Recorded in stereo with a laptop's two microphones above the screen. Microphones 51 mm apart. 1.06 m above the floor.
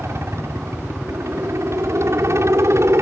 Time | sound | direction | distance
0.0 | a helicopter | 65° right (ahead or behind) | ?